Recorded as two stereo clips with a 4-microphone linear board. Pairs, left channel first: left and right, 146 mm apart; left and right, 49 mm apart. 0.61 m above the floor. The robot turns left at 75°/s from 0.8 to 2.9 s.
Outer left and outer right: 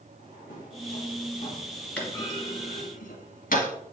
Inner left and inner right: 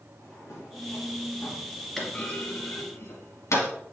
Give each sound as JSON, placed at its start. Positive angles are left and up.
{"t": 0.2, "sound": "a drawer", "side_deg": 70, "distance_m": 2.5}
{"t": 2.0, "sound": "a clunk", "side_deg": 5, "distance_m": 2.0}